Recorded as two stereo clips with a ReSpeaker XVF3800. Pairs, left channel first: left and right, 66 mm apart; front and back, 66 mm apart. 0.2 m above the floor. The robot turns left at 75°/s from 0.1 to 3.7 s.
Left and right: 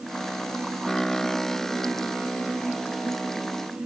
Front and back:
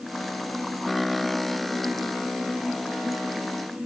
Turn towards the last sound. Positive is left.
No sound to turn to.